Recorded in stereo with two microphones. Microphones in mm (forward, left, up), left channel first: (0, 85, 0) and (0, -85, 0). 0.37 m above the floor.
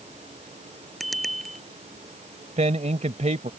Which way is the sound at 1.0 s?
Centre (ahead or behind).